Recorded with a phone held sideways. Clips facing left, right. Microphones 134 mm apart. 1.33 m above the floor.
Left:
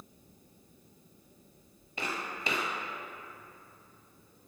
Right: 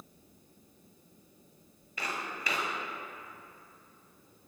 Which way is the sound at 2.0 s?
30° left (ahead or behind).